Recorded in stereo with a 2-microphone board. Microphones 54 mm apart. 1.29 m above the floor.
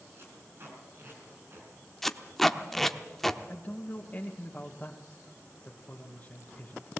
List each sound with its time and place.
0.2 s tape being pulled: 45° right (ahead or behind), 5 m
2.0 s tape being pulled: 10° left (ahead or behind), 0.9 m
3.5 s a man speaking: 35° left (ahead or behind), 1.6 m